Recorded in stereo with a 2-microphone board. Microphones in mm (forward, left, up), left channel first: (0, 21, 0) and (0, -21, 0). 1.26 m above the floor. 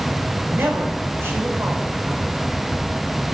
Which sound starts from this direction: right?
A man speaking, at 0.5 s.